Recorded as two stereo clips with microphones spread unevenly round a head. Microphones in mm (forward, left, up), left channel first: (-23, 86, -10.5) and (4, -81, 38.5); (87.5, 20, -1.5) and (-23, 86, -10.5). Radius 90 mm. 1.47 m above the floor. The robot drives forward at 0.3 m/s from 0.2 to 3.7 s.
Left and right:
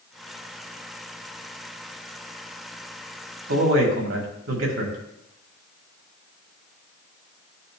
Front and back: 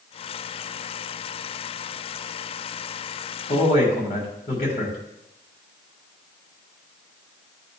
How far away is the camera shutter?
I don't hear a camera shutter.